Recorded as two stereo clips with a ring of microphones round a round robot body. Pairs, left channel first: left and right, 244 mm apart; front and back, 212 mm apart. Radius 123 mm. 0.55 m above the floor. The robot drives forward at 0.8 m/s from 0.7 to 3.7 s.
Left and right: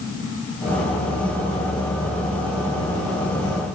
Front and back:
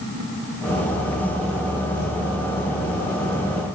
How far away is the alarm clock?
No alarm clock in this recording.